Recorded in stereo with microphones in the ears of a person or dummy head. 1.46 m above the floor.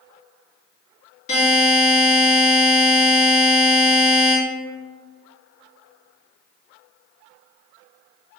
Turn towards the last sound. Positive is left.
turn(degrees=40)  # may be behind; listen again after turning